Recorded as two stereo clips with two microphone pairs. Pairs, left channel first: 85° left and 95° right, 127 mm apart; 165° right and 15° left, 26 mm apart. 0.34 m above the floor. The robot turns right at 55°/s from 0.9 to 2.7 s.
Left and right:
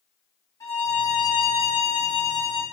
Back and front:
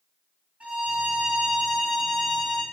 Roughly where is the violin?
Ahead left.